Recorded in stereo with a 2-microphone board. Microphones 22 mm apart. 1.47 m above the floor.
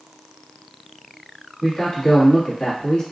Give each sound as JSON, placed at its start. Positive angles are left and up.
{"t": 1.6, "sound": "a man speaking", "side_deg": 50, "distance_m": 1.7}